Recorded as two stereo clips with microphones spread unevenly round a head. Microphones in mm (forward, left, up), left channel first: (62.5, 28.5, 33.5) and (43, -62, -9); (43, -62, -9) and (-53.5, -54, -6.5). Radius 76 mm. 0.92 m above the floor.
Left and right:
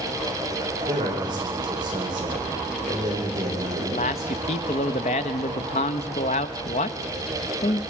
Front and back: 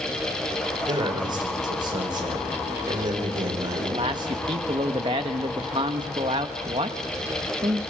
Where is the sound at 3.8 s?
125° left, 1.0 m.